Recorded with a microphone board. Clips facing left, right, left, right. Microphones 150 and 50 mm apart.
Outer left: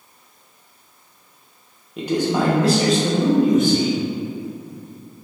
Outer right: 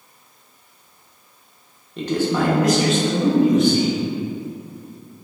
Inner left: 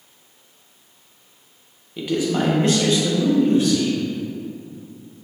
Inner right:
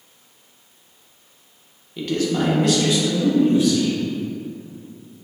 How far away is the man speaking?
About 0.7 m.